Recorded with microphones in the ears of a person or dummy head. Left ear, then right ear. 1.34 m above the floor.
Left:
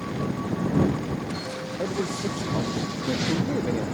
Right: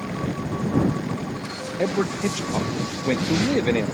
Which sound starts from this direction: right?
A man speaking, at 1.8 s.